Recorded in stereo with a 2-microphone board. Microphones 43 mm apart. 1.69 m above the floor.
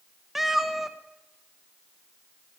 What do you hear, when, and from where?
0.3 s a cat meowing: 5° right (ahead or behind), 0.9 m